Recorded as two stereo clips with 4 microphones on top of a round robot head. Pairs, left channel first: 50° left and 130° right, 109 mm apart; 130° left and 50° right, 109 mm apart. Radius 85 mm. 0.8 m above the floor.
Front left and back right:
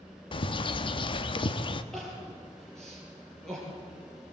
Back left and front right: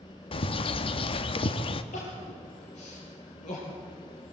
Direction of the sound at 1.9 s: 140° left.